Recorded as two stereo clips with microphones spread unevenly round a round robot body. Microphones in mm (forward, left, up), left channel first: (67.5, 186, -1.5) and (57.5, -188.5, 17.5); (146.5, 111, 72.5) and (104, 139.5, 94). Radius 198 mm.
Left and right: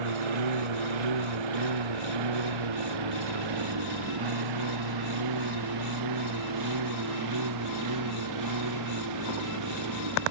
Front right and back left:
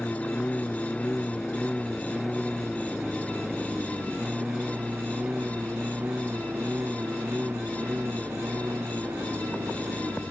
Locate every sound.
0.0 s a lawn mower: 110° right; by 10.3 s 140° right